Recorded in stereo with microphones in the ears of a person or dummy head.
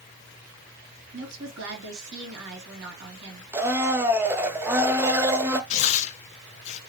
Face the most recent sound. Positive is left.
turn(degrees=40)  # may be behind; listen again after turning